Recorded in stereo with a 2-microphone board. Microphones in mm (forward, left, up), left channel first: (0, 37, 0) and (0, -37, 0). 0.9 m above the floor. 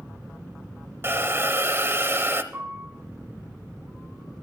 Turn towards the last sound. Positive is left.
turn(degrees=-35)  # may be behind; listen again after turning